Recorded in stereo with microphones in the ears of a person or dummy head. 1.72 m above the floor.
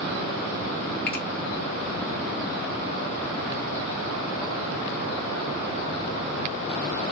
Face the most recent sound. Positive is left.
turn(degrees=5)  # may be behind; listen again after turning